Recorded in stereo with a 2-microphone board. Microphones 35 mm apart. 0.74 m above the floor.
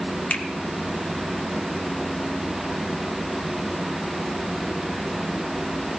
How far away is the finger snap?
About 1.4 m.